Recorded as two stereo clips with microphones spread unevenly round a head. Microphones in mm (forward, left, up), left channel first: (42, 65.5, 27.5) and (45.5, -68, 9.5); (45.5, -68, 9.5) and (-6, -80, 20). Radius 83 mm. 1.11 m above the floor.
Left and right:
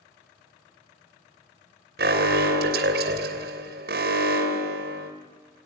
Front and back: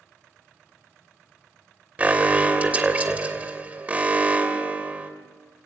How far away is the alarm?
About 3 m.